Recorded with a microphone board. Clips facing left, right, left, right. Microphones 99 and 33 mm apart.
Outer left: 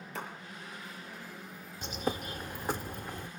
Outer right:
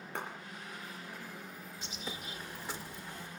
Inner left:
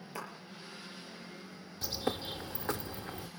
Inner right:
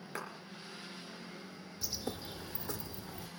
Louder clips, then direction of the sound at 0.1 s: Even, even; 60° right (ahead or behind).